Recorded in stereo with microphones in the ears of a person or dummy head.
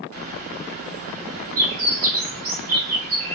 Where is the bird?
35° right (ahead or behind), 0.9 m.